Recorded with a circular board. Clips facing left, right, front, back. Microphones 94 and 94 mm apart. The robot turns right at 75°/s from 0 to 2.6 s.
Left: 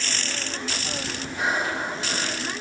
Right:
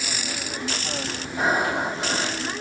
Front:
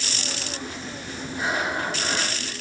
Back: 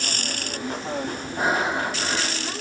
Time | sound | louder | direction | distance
1.4 | breathing | right 4 dB, back 3 dB | 145° right | 1.4 m